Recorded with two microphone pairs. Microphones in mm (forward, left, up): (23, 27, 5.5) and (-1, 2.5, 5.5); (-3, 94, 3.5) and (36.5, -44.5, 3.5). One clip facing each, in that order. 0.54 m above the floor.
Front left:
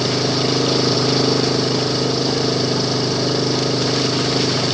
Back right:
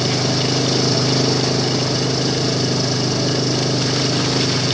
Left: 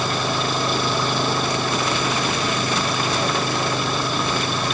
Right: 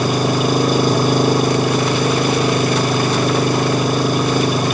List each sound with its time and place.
0.0 s an engine running: 25° right